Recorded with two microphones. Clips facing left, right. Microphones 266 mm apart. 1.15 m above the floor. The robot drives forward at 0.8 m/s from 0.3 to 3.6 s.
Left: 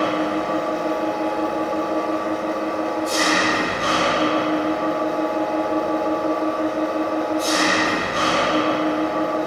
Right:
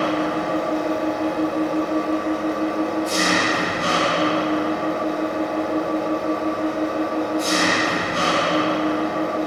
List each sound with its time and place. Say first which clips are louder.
0.0 s an engine running: even; 65° right (ahead or behind), 1.8 m; by 9.5 s 30° right (ahead or behind), 3.5 m